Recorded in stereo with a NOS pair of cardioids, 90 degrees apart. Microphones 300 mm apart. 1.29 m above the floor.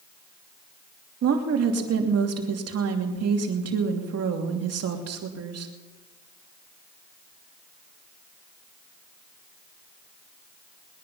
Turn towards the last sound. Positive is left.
turn(degrees=-60)